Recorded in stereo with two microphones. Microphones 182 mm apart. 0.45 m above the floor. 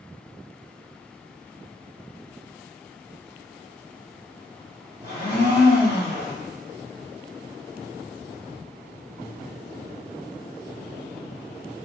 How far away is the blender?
About 1.7 m.